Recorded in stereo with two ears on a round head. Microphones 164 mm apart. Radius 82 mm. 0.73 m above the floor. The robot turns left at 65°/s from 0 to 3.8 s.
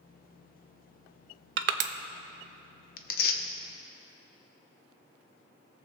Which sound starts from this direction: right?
Crushing, at 1.6 s.